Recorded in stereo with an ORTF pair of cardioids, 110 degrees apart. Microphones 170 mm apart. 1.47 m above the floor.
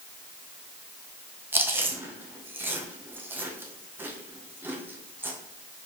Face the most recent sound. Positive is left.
turn(degrees=-10)